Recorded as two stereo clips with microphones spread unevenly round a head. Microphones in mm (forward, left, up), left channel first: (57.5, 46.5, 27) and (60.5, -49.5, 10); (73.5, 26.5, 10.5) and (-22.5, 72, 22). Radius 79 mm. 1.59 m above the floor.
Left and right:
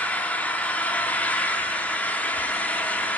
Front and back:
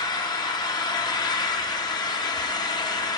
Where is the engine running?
25° left, 0.8 m.